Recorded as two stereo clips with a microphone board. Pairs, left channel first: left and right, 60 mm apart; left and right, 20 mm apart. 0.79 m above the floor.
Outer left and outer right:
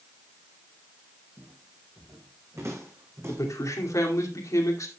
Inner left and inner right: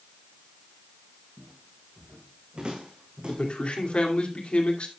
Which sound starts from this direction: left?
A man speaking, at 3.3 s.